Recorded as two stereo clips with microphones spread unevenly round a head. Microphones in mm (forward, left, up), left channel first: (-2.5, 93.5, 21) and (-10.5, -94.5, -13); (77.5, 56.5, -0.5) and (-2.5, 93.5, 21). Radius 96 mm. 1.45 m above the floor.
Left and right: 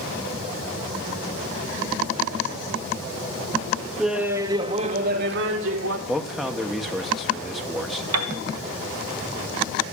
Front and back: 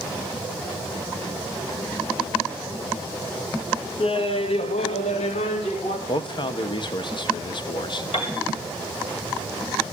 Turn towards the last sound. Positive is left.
turn(degrees=-85)